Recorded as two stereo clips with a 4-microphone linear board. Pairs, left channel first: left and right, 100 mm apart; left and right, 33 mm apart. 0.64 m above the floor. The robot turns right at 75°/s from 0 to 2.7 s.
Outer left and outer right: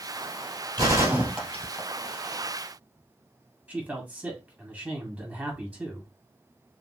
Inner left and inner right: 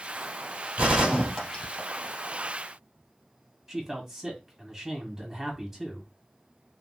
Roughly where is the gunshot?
Right.